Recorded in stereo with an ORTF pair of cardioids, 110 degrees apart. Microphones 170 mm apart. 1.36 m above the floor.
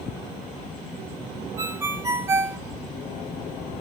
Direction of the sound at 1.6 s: 20° right.